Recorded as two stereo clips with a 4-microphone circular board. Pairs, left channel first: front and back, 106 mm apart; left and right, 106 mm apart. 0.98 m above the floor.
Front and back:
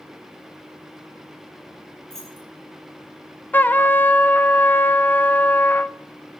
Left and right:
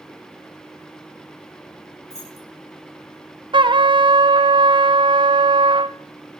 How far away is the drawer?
No drawer in this recording.